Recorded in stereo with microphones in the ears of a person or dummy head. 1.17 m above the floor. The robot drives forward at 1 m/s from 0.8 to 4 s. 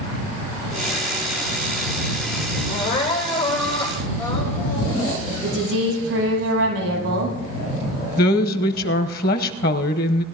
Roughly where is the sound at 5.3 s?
Right.